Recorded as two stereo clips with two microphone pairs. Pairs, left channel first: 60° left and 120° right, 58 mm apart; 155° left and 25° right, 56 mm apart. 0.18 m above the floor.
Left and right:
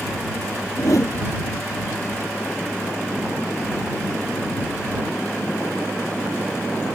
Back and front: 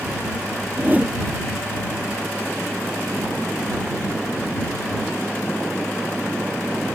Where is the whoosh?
40° left.